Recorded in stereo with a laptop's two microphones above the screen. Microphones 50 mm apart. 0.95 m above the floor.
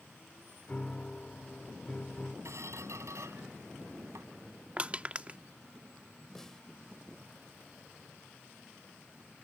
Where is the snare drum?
10° left (ahead or behind).